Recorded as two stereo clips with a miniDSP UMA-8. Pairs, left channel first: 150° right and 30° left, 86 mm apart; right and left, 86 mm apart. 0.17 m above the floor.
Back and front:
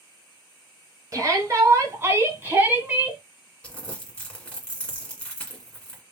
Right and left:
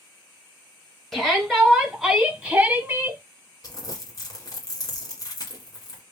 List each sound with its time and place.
1.1 s a shout: 5° right, 2.5 m; by 3.2 s 90° left, 1.7 m
3.6 s crumpling: 75° right, 1.9 m